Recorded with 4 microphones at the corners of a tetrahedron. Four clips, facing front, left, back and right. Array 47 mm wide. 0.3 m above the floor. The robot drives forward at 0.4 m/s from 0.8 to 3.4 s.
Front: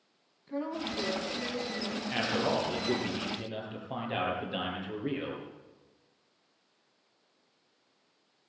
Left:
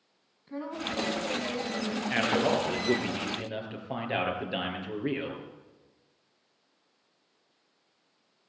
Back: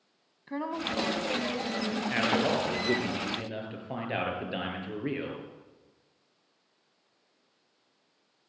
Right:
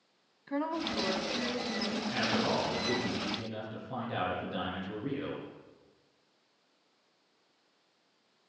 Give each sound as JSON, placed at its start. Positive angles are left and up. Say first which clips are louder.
{"t": 0.5, "sound": "a woman speaking", "louder": "right 2 dB, back 2 dB", "azimuth_deg": -135, "distance_m": 3.0}
{"t": 2.1, "sound": "a man speaking", "louder": "left 5 dB, back 3 dB", "azimuth_deg": 125, "distance_m": 6.5}